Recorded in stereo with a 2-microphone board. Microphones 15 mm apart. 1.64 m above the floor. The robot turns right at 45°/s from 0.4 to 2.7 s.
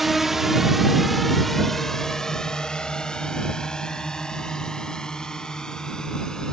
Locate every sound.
0.0 s a drone: 5° right (ahead or behind); by 6.5 s 50° left (ahead or behind)